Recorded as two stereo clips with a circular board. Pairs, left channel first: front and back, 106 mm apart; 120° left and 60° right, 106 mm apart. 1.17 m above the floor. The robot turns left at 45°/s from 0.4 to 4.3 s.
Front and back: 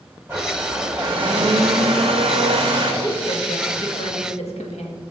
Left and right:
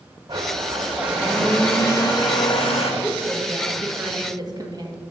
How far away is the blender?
About 1.9 m.